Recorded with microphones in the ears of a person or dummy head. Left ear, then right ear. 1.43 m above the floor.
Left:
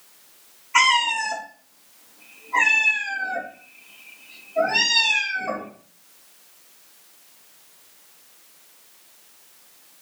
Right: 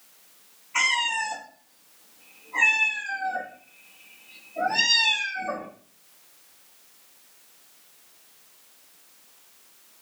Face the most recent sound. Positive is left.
turn(degrees=50)  # may be behind; listen again after turning